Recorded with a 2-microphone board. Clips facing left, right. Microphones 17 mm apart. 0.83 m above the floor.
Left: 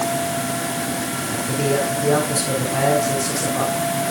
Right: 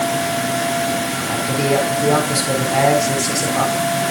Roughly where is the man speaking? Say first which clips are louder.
Right 3 dB; right.